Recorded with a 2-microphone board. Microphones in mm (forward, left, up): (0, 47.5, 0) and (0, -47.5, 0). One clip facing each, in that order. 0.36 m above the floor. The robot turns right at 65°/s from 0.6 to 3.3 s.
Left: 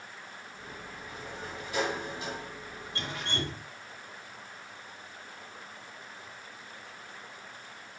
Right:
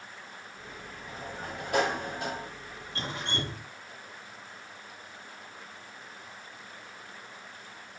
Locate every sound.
1.1 s a sliding door: 140° right, 1.2 m; by 2.5 s 45° right, 1.2 m
3.0 s dripping: 35° right (ahead or behind), 2.5 m; by 3.7 s 15° right (ahead or behind), 2.5 m